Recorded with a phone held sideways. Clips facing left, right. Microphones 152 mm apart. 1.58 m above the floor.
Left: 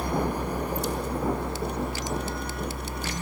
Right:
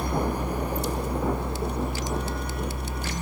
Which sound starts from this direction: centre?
A fan, at 0.0 s.